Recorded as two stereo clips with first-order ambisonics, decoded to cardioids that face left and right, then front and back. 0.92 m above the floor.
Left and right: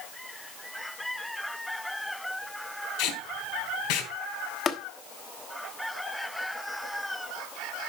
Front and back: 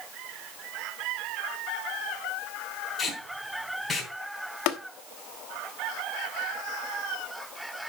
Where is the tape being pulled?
75° left, 3 m.